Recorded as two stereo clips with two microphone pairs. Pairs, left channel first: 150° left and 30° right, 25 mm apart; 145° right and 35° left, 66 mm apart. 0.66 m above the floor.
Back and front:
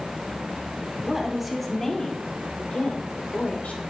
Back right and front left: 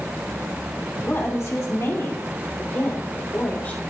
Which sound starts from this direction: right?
A woman speaking, at 1.0 s.